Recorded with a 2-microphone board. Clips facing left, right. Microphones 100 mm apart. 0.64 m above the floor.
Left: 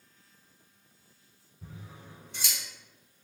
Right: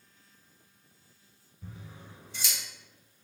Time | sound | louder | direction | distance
1.6 | scissors | even | 80° left | 1.5 m